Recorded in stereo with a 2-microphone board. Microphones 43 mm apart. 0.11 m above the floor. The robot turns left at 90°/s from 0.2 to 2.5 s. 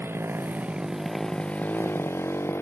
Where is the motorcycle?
65° right (ahead or behind); by 2.6 s 75° left (ahead or behind).